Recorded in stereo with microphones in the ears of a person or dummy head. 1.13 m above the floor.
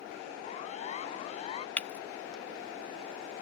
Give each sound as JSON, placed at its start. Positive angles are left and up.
{"t": 0.4, "sound": "a siren", "side_deg": 40}
{"t": 1.8, "sound": "breaking glass", "side_deg": 10}